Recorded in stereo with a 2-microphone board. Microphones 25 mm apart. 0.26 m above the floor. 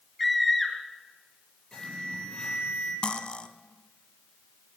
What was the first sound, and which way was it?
A scream, centre (ahead or behind).